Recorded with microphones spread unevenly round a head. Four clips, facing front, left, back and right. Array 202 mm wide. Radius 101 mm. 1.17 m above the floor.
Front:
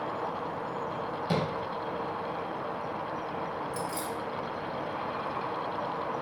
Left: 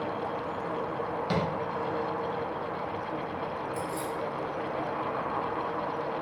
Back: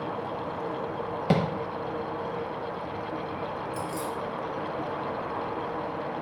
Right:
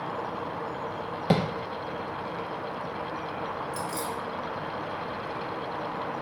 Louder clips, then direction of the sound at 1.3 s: Right 6 dB, back 5 dB; 135° right.